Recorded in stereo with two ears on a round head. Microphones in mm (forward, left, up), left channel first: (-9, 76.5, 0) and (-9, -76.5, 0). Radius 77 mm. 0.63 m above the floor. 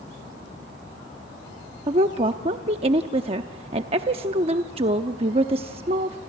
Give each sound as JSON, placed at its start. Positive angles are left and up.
{"t": 1.9, "sound": "a woman speaking", "side_deg": -35, "distance_m": 0.7}